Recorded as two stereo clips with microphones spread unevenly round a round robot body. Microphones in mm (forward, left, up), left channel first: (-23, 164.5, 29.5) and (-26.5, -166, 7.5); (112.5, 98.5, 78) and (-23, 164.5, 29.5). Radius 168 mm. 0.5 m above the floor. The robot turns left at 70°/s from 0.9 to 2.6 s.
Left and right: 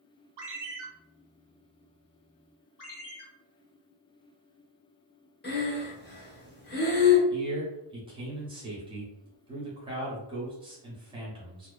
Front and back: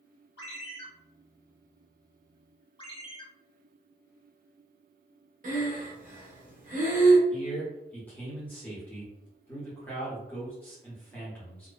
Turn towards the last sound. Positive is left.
turn(degrees=-135)